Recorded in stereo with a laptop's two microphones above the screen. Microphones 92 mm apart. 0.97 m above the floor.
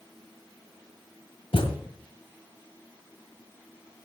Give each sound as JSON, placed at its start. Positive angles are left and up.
{"t": 1.5, "sound": "a thud", "side_deg": 75, "distance_m": 2.0}